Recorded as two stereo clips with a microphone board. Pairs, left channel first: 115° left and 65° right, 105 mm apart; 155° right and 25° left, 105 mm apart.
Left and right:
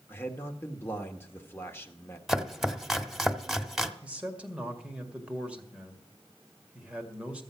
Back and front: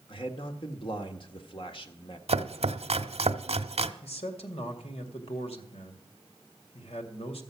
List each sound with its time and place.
0.1 s a man speaking: straight behind, 1.5 m
2.3 s chopping: 20° left, 0.7 m
4.0 s a man speaking: 145° right, 1.9 m